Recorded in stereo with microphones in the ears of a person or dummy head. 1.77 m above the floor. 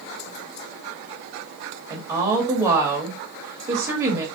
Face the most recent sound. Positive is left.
turn(degrees=-15)  # may be behind; listen again after turning